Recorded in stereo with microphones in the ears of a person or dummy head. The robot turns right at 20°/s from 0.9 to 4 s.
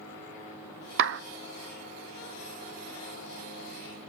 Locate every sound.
1.0 s a clap: 60° right (ahead or behind), 0.7 m